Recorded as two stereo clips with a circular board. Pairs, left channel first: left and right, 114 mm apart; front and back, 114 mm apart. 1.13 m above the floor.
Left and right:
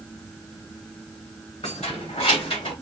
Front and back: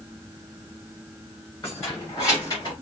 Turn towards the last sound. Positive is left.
turn(degrees=55)